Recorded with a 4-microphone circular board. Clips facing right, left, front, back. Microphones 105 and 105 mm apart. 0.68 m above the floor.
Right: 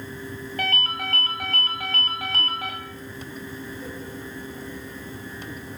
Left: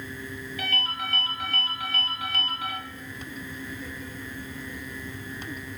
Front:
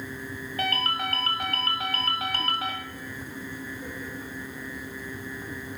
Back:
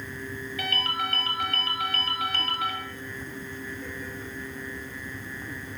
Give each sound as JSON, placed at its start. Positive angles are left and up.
{"t": 0.6, "sound": "a ringtone", "azimuth_deg": -50, "distance_m": 2.0}